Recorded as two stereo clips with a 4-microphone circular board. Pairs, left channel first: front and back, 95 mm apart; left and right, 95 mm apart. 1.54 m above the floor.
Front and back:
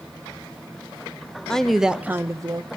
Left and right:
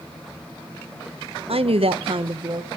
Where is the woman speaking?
80° right, 0.8 m; by 2.8 s 140° right, 0.7 m.